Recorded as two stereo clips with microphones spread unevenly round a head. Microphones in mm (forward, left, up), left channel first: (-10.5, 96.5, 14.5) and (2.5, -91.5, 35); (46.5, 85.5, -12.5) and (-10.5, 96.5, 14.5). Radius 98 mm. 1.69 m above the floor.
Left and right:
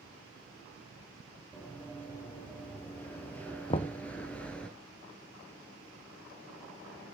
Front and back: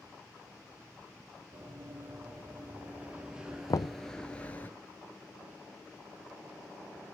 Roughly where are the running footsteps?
Behind.